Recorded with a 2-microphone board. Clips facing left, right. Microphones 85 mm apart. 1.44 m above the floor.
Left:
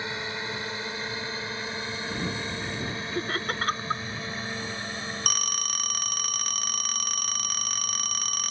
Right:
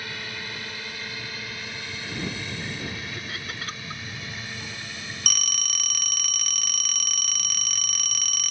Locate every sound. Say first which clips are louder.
0.0 s a drone: left 3 dB; 25° left (ahead or behind); by 8.5 s 35° left (ahead or behind)
3.1 s laughter: left 6 dB; 45° left (ahead or behind)
5.3 s a phone ringing: left 3 dB; 35° left (ahead or behind)